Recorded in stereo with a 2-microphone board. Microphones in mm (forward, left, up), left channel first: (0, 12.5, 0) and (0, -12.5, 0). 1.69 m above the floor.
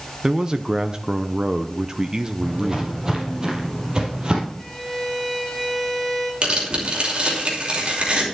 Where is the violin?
5° left (ahead or behind), 6.5 m.